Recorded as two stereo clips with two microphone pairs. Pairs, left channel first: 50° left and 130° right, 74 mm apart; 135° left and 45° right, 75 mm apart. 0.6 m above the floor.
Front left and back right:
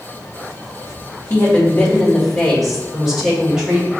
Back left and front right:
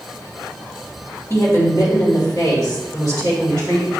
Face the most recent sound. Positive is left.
turn(degrees=155)